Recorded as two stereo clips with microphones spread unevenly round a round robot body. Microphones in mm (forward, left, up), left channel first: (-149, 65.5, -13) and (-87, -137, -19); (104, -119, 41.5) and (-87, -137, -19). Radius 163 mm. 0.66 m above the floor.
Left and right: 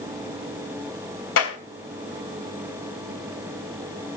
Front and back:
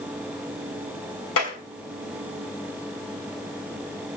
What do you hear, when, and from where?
1.4 s a clap: 55° left, 3 m